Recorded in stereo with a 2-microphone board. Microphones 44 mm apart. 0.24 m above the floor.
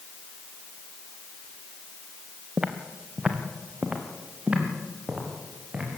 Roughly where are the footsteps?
Centre.